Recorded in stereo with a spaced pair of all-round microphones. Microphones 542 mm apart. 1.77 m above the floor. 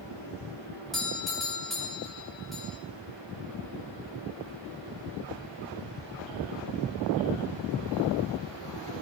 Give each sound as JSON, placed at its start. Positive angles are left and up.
{"t": 0.9, "sound": "a doorbell", "side_deg": 0, "distance_m": 7.0}